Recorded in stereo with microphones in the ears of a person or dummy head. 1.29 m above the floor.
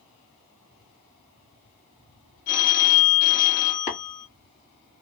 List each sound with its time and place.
2.5 s a phone ringing: 70° left (ahead or behind), 0.8 m
3.9 s tapping: 35° left (ahead or behind), 1.5 m